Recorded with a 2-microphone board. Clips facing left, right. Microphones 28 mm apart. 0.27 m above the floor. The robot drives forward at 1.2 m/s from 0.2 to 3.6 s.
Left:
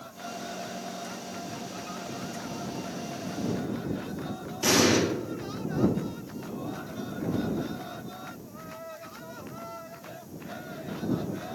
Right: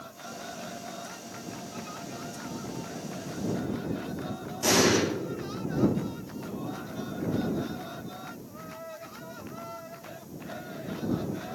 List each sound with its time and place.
4.6 s an explosion: 20° left (ahead or behind), 3 m